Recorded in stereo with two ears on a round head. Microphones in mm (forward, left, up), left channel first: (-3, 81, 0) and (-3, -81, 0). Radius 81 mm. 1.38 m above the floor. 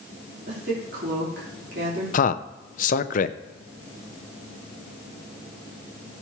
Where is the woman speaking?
60° right (ahead or behind), 4 m.